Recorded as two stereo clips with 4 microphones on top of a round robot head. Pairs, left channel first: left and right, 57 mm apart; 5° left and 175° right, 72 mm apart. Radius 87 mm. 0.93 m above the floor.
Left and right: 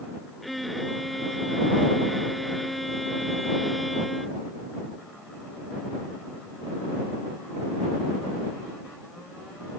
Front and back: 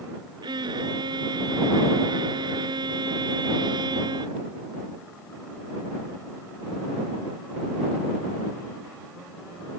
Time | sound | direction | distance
0.4 | a violin | straight behind | ?